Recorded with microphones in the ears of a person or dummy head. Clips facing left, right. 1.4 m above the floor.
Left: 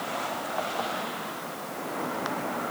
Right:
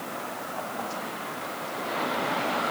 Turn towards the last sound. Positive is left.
No sound to turn to.